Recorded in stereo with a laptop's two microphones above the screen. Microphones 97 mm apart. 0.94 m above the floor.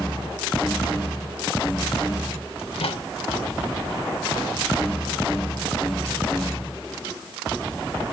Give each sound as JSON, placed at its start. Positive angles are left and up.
{"t": 2.6, "sound": "a microwave", "side_deg": 75, "distance_m": 1.5}